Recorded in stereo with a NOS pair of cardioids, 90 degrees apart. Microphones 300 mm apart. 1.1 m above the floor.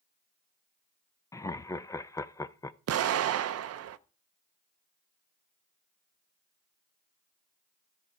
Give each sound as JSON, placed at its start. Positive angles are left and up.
{"t": 1.3, "sound": "laughter", "azimuth_deg": 10, "distance_m": 0.5}
{"t": 2.9, "sound": "an explosion", "azimuth_deg": -55, "distance_m": 0.6}